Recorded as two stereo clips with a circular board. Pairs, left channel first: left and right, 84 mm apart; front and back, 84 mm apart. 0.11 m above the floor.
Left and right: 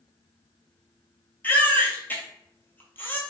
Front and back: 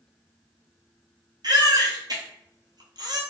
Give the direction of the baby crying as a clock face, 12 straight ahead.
7 o'clock.